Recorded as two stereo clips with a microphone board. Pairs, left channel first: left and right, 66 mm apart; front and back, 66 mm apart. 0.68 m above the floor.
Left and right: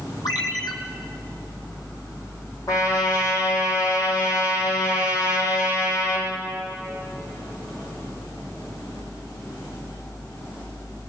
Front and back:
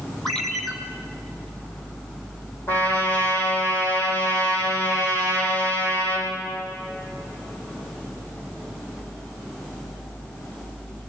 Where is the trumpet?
55° left, 10 m.